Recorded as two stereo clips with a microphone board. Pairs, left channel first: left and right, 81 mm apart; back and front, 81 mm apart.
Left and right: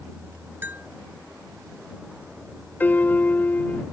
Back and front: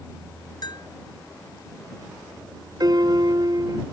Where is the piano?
25° left.